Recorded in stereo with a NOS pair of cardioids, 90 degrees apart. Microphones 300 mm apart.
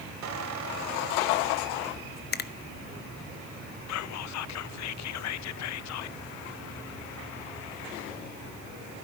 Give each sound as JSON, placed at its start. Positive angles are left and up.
{"t": 0.2, "sound": "a squeak", "azimuth_deg": -65, "distance_m": 2.0}
{"t": 2.3, "sound": "a finger snap", "azimuth_deg": 35, "distance_m": 0.7}
{"t": 3.9, "sound": "whispering", "azimuth_deg": 65, "distance_m": 0.6}